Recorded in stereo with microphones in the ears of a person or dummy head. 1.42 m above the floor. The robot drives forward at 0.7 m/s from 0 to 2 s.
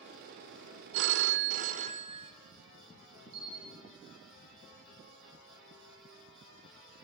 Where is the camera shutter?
50° right (ahead or behind), 9.5 m.